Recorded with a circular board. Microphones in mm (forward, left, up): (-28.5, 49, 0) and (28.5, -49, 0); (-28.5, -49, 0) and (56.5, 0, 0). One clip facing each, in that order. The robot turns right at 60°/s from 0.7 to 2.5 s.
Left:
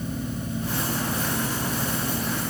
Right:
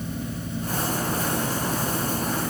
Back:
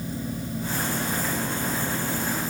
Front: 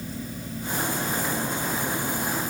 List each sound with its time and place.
Only background noise.